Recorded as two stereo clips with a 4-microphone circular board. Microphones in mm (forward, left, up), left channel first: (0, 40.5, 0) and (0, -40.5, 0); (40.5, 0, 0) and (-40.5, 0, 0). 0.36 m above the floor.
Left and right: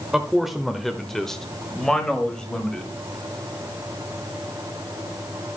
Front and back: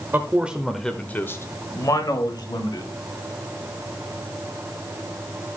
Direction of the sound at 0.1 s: 170° right.